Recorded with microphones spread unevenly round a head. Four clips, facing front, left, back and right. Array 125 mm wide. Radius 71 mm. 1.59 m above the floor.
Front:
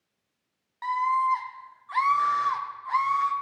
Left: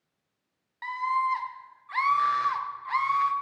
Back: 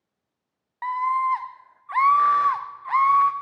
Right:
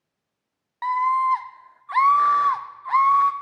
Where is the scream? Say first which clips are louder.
Right 7 dB, back 1 dB; 130° right, 0.6 m.